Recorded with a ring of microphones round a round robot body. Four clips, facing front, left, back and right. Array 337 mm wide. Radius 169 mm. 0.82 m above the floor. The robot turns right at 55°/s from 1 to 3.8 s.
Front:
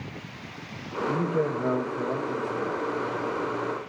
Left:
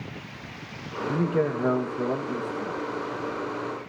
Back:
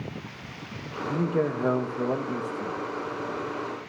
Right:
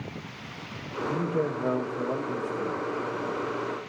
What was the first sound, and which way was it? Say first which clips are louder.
A man speaking: left 3 dB, back 1 dB; 100° left.